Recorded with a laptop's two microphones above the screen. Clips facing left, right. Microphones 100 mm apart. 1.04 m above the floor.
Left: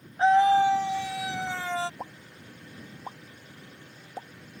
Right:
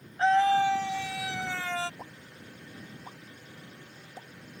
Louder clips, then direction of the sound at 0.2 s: Left 3 dB; 15° left (ahead or behind).